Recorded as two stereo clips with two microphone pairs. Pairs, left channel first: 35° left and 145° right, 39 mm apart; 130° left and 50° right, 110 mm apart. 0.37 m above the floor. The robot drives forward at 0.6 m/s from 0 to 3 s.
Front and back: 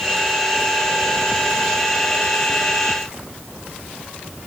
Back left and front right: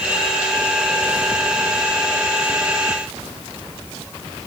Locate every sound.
Only background noise.